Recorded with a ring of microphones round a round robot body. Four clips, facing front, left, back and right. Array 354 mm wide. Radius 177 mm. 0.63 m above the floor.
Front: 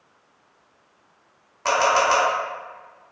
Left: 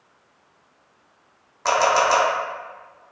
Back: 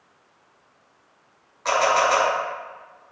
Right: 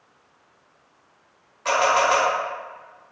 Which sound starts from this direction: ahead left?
A camera shutter, at 1.6 s.